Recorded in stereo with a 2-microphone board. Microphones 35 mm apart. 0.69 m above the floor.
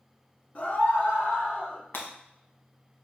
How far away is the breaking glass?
About 0.9 m.